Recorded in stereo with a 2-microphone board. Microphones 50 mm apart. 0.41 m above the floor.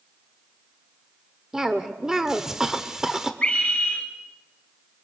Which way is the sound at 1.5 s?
10° right (ahead or behind).